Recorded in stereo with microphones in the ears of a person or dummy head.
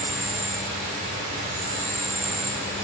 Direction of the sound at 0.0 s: 60° right (ahead or behind).